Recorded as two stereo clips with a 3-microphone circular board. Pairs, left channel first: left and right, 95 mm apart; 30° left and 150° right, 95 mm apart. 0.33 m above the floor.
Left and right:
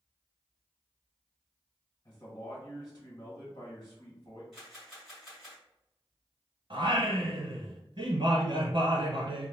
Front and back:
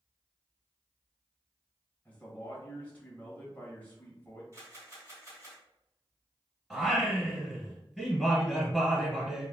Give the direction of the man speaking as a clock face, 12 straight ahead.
9 o'clock.